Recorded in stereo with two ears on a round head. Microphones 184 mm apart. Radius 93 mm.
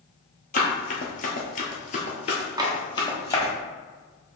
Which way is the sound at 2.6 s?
20° right (ahead or behind).